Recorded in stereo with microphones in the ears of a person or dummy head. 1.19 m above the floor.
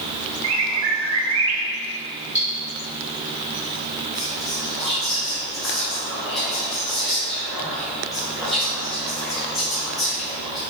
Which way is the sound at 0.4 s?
75° right (ahead or behind).